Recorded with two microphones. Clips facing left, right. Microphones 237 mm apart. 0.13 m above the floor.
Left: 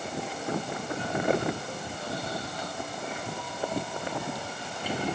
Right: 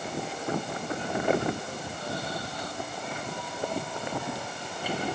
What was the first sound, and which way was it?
Only background noise.